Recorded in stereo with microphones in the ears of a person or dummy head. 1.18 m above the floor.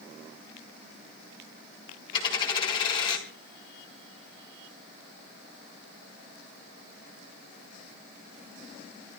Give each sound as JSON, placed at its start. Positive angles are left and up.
{"t": 2.1, "sound": "a dropped coin", "side_deg": 30, "distance_m": 4.5}